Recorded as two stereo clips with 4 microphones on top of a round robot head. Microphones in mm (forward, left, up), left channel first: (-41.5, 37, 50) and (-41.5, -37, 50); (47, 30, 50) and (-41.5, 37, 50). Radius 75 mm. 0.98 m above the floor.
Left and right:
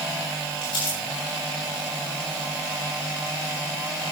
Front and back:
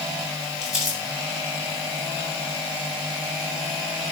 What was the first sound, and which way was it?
Crumpling, 90° left.